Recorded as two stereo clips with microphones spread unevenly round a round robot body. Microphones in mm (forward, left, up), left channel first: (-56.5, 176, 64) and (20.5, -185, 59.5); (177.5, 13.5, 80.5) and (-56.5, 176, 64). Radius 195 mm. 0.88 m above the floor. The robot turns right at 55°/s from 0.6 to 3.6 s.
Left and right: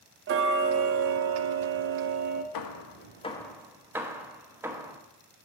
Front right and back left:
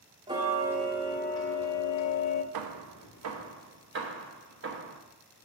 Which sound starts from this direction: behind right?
Ticking, at 0.3 s.